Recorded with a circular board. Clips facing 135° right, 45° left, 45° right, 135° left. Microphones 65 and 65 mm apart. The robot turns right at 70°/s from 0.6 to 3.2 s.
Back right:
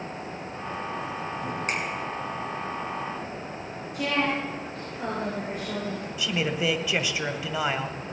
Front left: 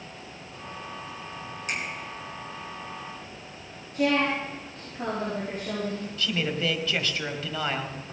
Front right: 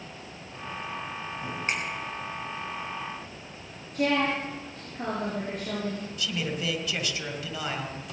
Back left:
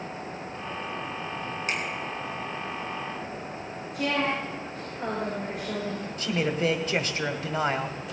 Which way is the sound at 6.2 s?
155° left.